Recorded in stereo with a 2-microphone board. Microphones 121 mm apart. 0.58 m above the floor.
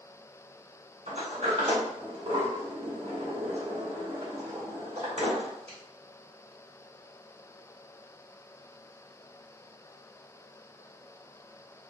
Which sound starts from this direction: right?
A sliding door, at 1.1 s.